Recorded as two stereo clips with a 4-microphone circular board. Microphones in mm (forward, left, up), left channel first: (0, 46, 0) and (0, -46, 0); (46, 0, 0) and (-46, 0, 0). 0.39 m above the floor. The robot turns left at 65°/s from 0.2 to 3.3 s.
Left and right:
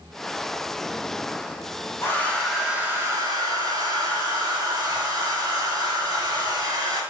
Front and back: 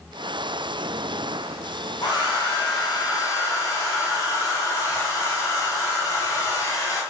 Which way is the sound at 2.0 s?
30° left.